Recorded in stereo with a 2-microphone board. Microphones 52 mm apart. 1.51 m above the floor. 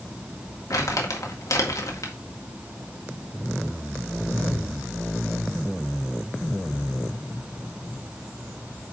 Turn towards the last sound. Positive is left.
turn(degrees=75)  # may be behind; listen again after turning